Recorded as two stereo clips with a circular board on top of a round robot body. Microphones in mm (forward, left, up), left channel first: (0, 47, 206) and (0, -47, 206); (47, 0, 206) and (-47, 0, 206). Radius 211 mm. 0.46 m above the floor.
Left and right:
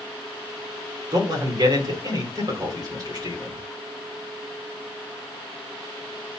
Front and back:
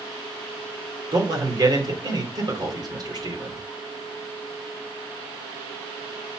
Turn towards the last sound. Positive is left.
turn(degrees=-135)